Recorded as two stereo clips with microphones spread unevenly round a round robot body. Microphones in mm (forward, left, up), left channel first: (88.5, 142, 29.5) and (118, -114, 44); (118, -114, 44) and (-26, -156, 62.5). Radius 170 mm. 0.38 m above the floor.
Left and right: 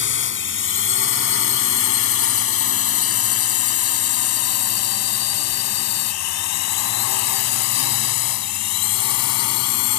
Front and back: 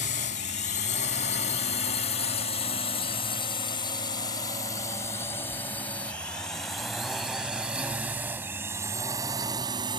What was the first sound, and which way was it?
A drone, 55° left.